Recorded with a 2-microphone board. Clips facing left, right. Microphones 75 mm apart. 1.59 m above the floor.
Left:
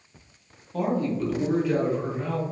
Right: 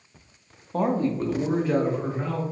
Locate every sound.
0.7 s a man speaking: 40° right (ahead or behind), 0.5 m; by 2.4 s 35° right (ahead or behind), 1.6 m